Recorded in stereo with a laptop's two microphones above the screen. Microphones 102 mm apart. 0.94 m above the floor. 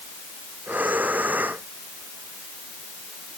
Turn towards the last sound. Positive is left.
turn(degrees=-15)  # may be behind; listen again after turning